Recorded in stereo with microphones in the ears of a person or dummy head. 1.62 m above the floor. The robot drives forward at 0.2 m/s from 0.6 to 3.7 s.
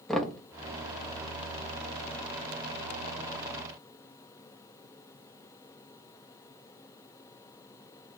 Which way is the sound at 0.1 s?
5° left (ahead or behind).